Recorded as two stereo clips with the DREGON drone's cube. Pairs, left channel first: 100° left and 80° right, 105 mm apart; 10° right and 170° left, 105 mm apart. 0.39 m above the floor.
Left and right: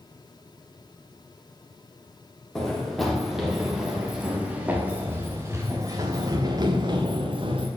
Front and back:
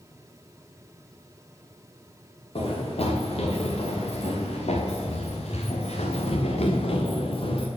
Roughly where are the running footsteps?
Ahead.